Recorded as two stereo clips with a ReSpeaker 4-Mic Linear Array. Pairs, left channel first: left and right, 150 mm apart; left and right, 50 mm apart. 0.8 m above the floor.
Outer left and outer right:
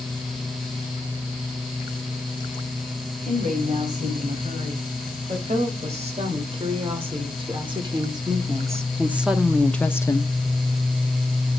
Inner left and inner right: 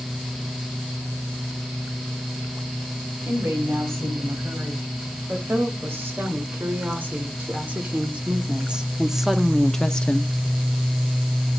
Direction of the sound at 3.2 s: 55° right (ahead or behind).